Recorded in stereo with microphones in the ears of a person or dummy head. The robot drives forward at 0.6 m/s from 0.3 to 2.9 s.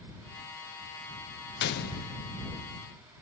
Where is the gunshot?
50° left (ahead or behind), 0.6 m; by 2.2 s 40° left (ahead or behind), 0.8 m.